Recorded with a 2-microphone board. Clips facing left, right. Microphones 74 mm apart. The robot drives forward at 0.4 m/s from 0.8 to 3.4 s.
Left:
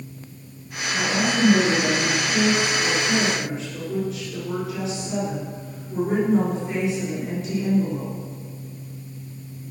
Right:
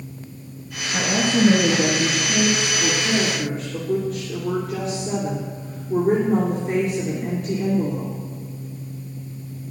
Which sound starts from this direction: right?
A woman speaking, at 0.9 s.